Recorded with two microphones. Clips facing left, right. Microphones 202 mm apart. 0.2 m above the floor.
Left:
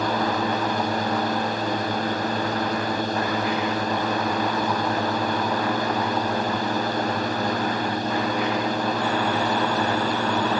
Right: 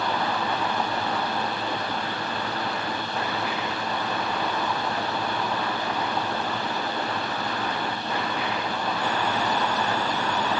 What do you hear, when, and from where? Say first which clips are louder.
0.0 s a drone: left 4 dB; 45° left (ahead or behind)